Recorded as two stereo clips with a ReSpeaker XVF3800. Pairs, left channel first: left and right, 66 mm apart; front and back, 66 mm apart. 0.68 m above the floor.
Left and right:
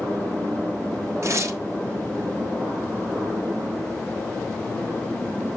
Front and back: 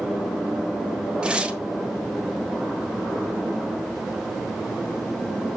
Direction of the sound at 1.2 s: 110° right.